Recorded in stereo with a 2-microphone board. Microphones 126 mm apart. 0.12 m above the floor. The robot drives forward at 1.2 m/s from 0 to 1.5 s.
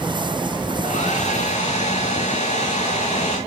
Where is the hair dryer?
70° left (ahead or behind), 3.5 m; by 3.4 s 60° left (ahead or behind), 4 m.